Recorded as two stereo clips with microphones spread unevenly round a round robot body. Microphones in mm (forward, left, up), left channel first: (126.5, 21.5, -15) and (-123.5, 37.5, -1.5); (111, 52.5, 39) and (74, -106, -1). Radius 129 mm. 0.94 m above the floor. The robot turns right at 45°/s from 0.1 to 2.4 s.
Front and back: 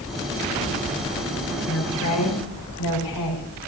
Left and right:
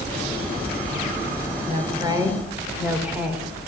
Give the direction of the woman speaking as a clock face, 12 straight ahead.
2 o'clock.